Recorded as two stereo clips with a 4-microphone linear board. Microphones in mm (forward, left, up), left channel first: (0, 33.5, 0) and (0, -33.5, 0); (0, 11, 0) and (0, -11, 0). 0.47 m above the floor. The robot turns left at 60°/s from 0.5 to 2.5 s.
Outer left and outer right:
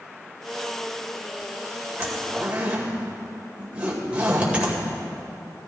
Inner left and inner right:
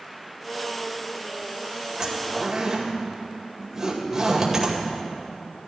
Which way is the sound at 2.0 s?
40° right (ahead or behind).